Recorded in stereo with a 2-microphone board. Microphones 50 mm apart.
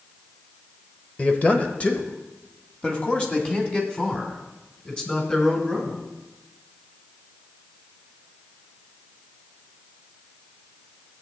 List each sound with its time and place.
1.2 s a man speaking: 25° left (ahead or behind), 1.0 m